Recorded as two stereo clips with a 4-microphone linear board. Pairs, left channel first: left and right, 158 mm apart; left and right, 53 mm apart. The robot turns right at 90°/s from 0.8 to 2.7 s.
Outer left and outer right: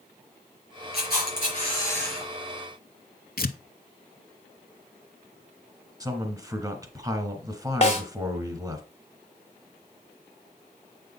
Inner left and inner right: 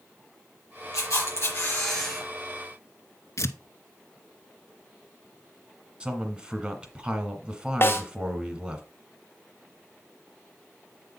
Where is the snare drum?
40° left (ahead or behind), 2.0 m.